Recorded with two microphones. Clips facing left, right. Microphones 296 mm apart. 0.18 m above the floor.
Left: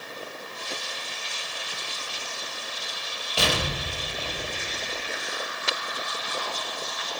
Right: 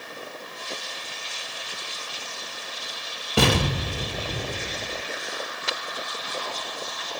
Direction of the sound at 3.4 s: 65° right (ahead or behind).